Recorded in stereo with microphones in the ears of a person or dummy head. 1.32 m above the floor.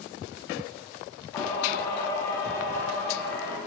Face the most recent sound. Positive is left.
turn(degrees=10)  # may be behind; listen again after turning